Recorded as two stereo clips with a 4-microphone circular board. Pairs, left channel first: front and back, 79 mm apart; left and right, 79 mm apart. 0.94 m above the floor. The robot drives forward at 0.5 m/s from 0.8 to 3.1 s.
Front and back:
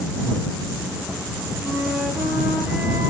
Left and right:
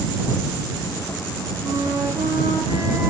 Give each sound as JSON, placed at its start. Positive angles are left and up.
{"t": 1.6, "sound": "a flute", "azimuth_deg": -80, "distance_m": 0.9}